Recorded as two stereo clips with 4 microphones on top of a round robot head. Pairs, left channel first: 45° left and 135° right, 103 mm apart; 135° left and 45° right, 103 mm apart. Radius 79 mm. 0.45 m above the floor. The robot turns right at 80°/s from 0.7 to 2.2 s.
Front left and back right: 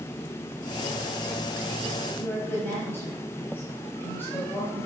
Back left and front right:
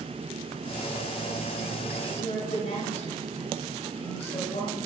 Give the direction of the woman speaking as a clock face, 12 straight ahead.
8 o'clock.